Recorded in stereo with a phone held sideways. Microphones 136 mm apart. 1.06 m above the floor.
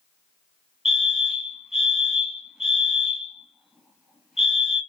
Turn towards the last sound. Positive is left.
turn(degrees=-5)  # may be behind; listen again after turning